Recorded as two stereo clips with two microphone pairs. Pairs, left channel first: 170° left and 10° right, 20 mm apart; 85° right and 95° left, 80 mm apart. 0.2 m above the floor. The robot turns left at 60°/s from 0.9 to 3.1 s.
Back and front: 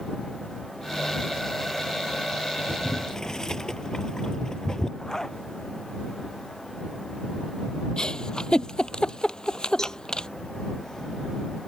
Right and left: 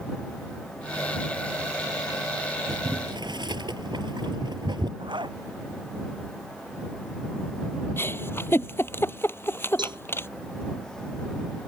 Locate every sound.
2.7 s boiling: 130° left; by 4.9 s 105° left
5.0 s a zipper: 100° left
8.0 s a giggle: 145° right
9.8 s a cowbell: 105° left